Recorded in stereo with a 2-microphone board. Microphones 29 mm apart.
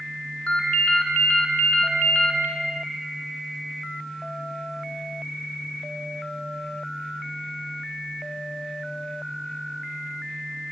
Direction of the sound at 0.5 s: 45° left (ahead or behind).